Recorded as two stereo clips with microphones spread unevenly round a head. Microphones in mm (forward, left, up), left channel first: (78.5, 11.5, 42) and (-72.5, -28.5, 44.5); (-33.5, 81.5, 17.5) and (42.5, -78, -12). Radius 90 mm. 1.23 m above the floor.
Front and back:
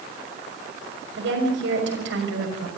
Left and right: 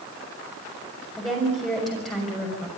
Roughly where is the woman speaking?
Behind right.